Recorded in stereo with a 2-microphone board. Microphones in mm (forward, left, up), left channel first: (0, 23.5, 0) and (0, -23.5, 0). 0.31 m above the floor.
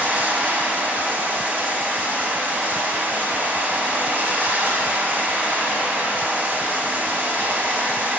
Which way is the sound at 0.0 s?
45° right (ahead or behind).